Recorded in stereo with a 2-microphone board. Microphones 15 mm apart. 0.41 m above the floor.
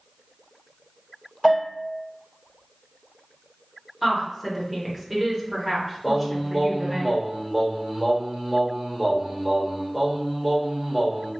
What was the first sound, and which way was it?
A bell, 25° right (ahead or behind).